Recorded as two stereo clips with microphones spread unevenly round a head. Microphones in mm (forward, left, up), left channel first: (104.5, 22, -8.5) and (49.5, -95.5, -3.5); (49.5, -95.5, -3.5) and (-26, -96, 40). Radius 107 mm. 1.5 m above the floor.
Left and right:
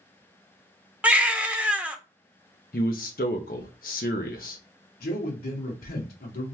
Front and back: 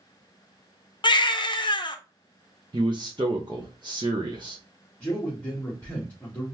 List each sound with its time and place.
1.0 s a baby crying: 40° right, 0.8 m
2.7 s a man speaking: 110° left, 0.6 m
5.0 s a man speaking: 75° left, 1.4 m